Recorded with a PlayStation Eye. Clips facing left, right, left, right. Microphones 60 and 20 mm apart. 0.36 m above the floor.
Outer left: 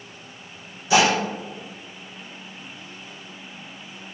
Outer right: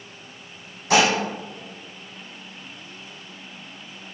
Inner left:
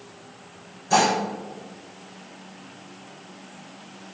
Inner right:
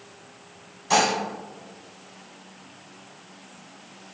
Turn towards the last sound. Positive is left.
turn(degrees=-65)  # may be behind; listen again after turning